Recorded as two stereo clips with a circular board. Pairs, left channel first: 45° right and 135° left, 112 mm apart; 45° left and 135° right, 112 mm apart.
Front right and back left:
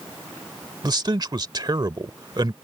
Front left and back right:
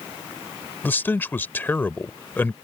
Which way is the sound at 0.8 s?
110° left.